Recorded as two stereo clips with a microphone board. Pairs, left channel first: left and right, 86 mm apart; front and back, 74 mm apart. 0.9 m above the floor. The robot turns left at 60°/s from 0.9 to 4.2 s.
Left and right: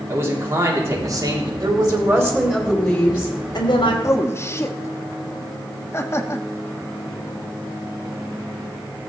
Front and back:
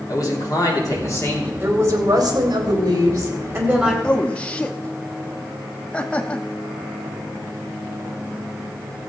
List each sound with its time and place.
0.1 s a man speaking: 30° right, 2.5 m; by 1.5 s 65° right, 2.5 m
1.6 s a woman speaking: 115° right, 2.5 m; by 3.9 s 105° left, 2.5 m
4.0 s a man speaking: 75° left, 1.0 m; by 6.5 s 65° left, 1.0 m